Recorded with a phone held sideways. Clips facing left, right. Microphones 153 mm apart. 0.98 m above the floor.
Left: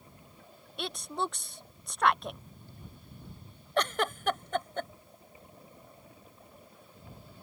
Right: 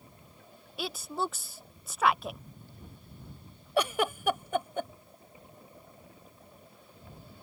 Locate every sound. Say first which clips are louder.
0.8 s a woman speaking: right 1 dB; 5° right (ahead or behind)
3.8 s a giggle: right 2 dB; 10° right (ahead or behind)